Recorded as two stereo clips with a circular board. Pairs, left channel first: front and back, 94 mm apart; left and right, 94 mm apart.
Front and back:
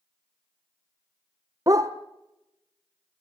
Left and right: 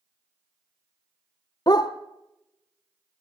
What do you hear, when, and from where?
1.7 s a dog barking: 130° left, 1.4 m